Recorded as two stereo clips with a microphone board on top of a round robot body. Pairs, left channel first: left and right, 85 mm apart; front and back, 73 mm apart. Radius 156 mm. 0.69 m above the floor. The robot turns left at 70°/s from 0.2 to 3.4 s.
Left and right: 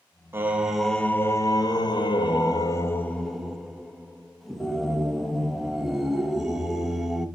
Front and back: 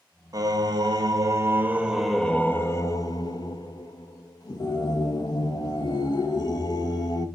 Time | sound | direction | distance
0.3 | singing | 145° right | 1.0 m